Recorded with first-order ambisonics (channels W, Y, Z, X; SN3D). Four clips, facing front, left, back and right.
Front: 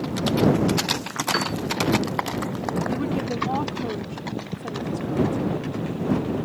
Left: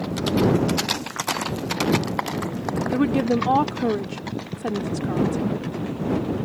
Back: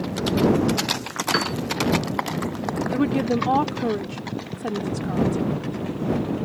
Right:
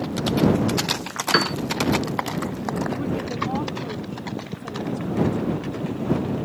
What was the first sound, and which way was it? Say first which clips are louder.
A piano: right 7 dB, back 2 dB; 100° right.